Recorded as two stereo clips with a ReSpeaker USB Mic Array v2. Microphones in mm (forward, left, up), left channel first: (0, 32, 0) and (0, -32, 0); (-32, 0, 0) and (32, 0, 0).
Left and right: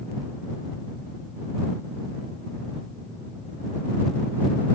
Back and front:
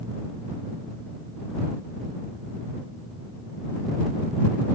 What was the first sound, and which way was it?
Only background noise.